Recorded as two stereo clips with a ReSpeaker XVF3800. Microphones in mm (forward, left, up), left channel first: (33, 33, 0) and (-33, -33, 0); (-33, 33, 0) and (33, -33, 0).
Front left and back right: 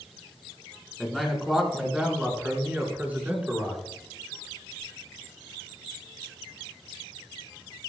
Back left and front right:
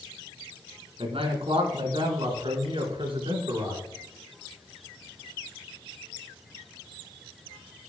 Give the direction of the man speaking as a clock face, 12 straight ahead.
1 o'clock.